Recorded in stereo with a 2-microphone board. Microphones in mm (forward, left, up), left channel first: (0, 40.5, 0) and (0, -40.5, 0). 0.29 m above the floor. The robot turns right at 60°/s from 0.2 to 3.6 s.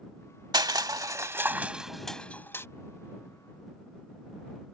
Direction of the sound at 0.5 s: 60° right (ahead or behind).